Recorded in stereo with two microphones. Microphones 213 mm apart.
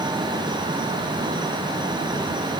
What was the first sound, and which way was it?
Only background noise.